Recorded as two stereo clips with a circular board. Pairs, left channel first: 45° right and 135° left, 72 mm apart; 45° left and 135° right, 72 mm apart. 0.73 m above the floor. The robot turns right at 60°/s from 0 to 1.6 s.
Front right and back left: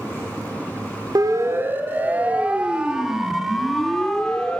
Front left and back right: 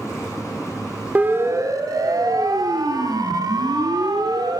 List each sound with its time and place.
1.1 s a siren: 155° left, 3 m; by 4.6 s 120° right, 3 m